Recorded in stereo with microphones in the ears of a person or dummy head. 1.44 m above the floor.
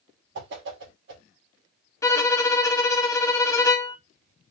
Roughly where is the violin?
Centre.